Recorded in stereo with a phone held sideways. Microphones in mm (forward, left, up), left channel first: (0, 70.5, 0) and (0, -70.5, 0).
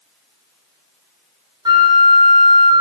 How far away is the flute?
About 0.5 m.